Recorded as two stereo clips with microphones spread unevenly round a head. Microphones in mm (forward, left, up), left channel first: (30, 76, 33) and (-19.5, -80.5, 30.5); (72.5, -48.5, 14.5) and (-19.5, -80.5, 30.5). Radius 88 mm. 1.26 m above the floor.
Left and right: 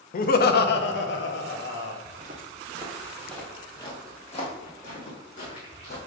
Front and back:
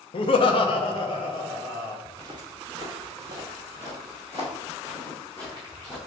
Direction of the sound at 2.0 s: 140° right.